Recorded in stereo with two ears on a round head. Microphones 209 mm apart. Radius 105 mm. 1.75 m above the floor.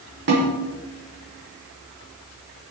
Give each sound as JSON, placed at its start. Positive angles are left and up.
{"t": 0.3, "sound": "a snare drum", "side_deg": -50, "distance_m": 5.5}